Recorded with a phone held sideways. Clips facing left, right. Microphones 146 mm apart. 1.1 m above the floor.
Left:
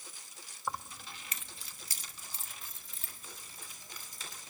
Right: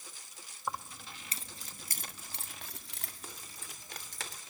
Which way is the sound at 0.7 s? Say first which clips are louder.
Even; 5° right (ahead or behind).